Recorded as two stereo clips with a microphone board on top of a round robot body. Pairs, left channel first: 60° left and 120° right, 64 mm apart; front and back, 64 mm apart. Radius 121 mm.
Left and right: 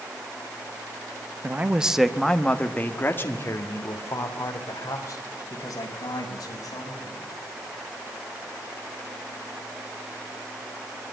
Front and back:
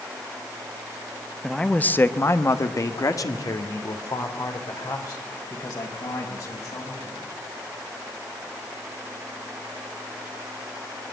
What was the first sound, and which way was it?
A man speaking, 80° right.